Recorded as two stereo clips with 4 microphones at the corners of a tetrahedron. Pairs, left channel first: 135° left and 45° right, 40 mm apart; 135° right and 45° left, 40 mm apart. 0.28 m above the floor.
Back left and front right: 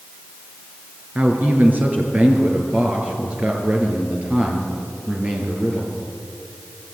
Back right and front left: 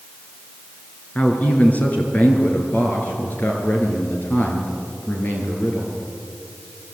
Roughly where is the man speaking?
Right.